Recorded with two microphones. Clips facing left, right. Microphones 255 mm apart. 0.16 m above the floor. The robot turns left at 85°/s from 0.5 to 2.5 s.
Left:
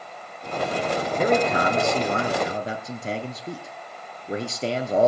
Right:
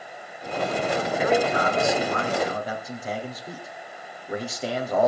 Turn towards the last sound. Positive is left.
turn(degrees=30)